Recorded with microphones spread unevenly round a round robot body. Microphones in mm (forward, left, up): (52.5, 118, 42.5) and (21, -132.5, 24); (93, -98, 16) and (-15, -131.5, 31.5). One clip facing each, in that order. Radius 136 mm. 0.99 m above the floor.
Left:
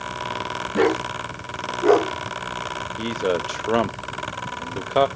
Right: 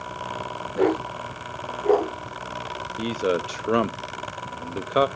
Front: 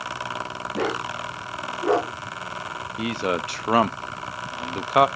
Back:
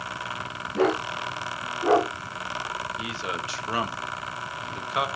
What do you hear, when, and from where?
0.7 s a dog barking: 90° left, 5.5 m; by 2.1 s 105° left, 4.5 m
3.0 s a man speaking: 15° right, 0.8 m